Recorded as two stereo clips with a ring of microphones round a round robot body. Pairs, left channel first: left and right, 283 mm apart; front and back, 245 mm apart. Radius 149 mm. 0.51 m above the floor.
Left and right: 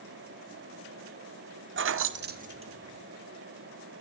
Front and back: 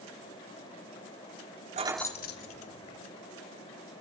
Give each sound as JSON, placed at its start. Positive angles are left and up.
{"t": 1.8, "sound": "keys jangling", "azimuth_deg": -125, "distance_m": 0.5}